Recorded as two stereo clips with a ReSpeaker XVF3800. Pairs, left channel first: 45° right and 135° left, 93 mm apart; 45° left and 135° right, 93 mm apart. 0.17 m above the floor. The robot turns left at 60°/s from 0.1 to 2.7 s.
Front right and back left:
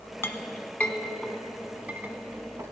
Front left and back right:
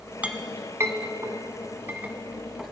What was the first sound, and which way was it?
A clink, 75° right.